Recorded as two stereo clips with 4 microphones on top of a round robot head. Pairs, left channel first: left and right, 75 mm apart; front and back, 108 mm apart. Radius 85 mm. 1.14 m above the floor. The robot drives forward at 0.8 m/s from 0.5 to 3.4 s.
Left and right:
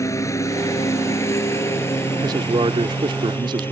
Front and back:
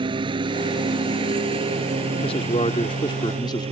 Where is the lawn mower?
135° left; by 3.7 s 150° left.